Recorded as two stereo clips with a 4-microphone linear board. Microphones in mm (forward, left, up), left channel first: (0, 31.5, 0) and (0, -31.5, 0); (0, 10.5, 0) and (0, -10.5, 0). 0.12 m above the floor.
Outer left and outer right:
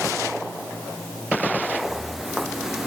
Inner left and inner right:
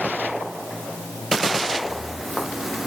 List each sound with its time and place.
1.6 s footsteps: centre (ahead or behind); by 2.9 s 10° right (ahead or behind)